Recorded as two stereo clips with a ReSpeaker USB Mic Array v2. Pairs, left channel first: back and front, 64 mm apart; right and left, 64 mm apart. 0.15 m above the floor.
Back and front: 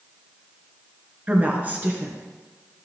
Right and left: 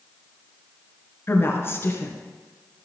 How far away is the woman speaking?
About 1.7 m.